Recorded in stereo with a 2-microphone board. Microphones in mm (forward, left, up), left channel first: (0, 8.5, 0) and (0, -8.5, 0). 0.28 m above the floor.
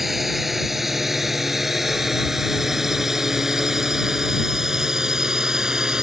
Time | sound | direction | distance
0.0 | a drone | 10° right (ahead or behind) | ?